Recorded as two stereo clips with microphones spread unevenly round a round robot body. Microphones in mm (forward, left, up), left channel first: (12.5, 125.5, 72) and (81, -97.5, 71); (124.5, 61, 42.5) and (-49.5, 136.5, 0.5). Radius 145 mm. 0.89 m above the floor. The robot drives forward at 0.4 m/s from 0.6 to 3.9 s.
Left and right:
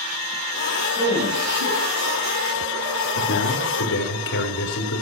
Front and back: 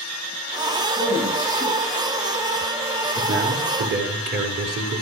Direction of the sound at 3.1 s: 145° left.